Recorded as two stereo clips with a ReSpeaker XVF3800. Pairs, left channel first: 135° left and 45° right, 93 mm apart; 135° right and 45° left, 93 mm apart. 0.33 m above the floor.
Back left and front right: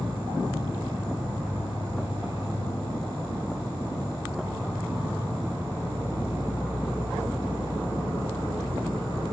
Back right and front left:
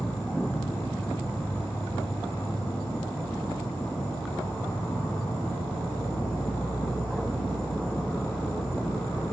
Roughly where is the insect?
Behind left.